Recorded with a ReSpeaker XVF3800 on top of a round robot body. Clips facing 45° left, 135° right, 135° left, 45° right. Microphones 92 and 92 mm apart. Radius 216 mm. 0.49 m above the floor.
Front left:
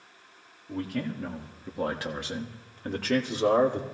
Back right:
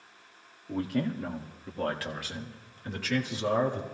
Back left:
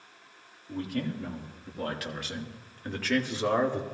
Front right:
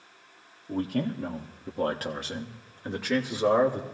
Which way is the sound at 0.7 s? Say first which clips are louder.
Back right 2 dB, front right 4 dB; 75° right.